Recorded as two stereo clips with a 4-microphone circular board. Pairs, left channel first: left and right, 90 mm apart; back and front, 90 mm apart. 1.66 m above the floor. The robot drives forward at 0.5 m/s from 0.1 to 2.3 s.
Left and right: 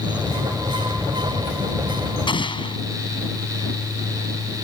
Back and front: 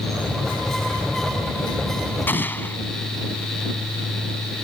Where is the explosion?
115° left.